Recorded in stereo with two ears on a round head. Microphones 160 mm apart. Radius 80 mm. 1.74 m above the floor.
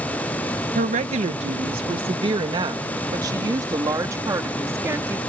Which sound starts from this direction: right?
A woman speaking, at 0.8 s.